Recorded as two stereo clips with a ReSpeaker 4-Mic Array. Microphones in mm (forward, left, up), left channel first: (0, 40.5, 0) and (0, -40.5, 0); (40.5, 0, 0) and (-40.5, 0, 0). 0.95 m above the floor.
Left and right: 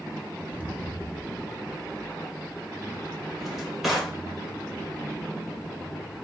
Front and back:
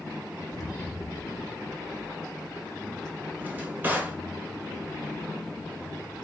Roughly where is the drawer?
Behind.